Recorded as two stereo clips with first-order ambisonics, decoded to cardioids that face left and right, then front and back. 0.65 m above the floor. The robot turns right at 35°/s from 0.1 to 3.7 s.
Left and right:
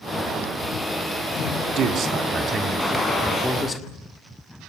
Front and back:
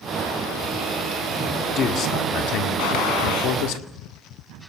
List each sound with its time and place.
1.5 s a man speaking: 65° right, 2.0 m; by 3.8 s 15° left, 2.0 m
2.8 s a gunshot: straight ahead, 4 m; by 3.6 s 25° left, 4 m